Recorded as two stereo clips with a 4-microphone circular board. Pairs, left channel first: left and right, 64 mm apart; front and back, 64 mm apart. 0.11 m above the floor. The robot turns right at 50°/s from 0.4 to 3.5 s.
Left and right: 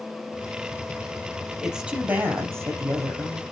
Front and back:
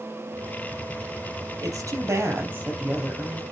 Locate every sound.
1.6 s a woman speaking: 170° right, 3.5 m; by 3.4 s 80° right, 3.5 m